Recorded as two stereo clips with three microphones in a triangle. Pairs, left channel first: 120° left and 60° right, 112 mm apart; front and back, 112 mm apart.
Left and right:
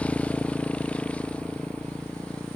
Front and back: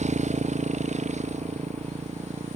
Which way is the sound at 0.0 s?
160° right.